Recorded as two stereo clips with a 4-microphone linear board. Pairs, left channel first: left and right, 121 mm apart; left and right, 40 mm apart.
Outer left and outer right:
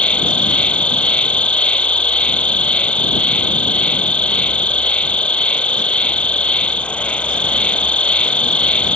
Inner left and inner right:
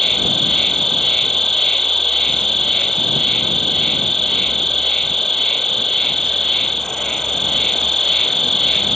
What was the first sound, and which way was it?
An insect, 10° left (ahead or behind).